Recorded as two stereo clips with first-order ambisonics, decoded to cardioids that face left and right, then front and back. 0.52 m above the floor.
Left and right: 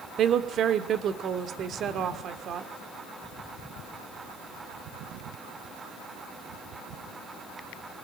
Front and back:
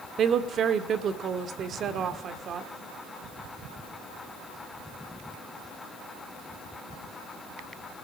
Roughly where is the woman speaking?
Behind right.